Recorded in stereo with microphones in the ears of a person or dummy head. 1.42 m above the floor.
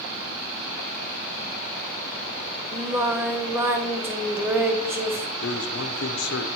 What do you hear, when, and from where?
2.7 s singing: 10° right (ahead or behind), 0.6 m
5.4 s a man speaking: 60° left (ahead or behind), 0.9 m